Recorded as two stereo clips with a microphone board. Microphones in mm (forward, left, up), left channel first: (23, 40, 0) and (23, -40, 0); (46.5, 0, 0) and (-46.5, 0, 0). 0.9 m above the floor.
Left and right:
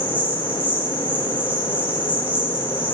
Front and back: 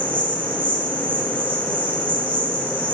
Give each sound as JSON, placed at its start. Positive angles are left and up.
{"t": 0.0, "sound": "an insect", "azimuth_deg": -160, "distance_m": 7.0}